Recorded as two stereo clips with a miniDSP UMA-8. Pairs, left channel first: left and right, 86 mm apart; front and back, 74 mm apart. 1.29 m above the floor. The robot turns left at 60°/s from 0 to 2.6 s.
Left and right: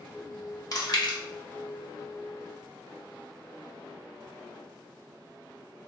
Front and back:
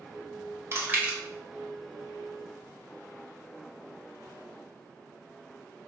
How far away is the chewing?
About 0.8 m.